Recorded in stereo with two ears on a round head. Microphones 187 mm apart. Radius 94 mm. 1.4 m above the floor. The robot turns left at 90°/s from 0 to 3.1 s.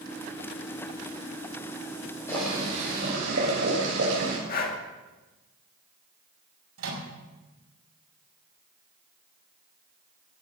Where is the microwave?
80° right, 5.5 m.